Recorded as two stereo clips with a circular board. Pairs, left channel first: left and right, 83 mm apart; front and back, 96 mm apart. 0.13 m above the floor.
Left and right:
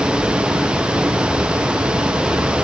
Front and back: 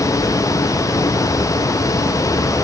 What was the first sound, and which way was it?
Only background noise.